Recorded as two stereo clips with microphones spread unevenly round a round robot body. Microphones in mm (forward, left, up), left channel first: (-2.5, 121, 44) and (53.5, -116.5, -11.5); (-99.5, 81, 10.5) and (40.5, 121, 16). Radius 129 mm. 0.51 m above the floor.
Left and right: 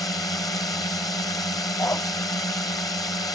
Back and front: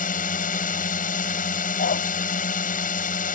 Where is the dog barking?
175° right.